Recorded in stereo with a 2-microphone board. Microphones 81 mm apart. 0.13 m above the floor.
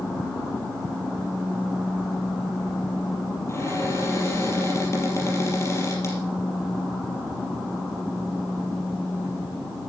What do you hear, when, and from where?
3.5 s a cupboard door: 35° left (ahead or behind), 4 m